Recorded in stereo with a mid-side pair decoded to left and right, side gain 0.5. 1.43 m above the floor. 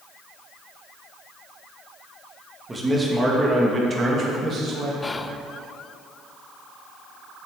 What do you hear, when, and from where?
2.7 s a man speaking: 20° right, 1.9 m; by 4.9 s 55° right, 2 m
5.0 s whispering: 20° left, 0.5 m